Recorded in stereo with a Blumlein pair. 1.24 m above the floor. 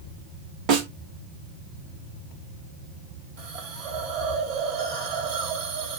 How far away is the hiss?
About 1.1 m.